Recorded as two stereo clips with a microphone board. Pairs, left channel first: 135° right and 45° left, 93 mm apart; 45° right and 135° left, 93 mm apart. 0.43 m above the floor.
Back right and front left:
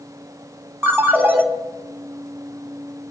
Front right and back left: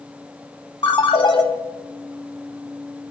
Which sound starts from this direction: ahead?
A ringtone, at 0.8 s.